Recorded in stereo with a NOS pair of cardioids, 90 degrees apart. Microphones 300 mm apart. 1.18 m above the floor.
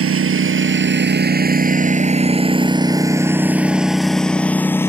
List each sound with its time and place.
0.0 s a lawn mower: 50° right; by 4.9 s 10° left